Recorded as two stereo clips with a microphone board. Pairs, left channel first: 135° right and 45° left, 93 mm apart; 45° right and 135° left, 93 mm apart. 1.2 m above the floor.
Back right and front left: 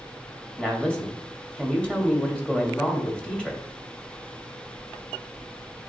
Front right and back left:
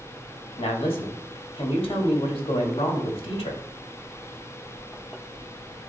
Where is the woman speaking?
55° right, 1.7 m.